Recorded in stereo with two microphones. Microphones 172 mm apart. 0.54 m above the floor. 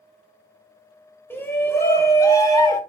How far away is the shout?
About 2.5 m.